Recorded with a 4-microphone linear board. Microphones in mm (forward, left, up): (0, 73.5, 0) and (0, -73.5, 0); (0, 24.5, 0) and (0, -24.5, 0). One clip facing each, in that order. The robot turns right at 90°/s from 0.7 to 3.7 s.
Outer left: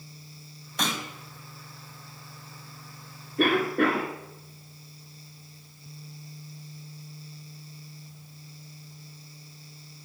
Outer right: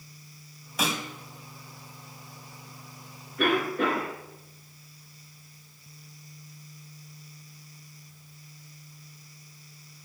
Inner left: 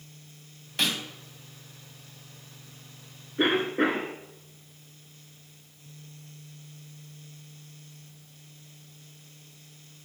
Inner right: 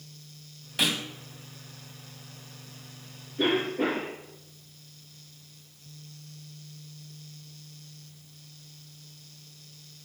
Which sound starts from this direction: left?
A cough, at 3.4 s.